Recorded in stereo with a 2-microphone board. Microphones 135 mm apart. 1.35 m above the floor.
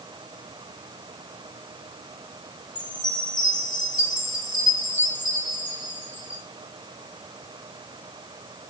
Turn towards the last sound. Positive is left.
turn(degrees=65)  # may be behind; listen again after turning